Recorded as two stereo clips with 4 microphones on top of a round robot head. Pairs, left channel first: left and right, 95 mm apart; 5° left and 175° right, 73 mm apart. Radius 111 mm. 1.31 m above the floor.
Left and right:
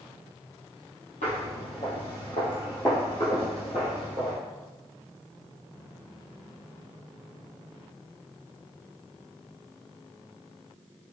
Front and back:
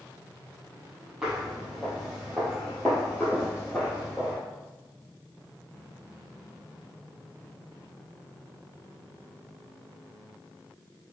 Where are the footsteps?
110° left, 1.7 m; by 4.4 s 45° right, 1.4 m.